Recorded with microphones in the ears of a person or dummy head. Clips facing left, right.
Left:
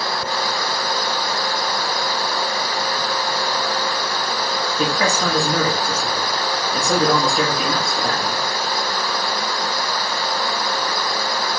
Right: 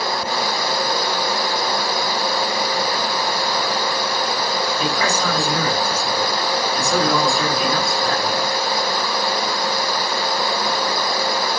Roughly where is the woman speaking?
Left.